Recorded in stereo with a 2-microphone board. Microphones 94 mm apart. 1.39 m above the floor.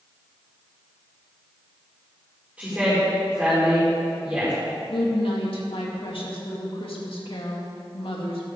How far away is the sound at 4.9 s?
About 2.5 m.